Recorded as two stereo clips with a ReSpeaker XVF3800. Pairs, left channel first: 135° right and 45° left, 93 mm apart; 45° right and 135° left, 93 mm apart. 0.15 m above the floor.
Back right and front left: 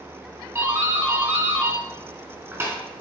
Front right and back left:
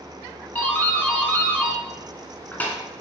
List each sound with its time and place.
0.6 s a doorbell: 10° left, 1.8 m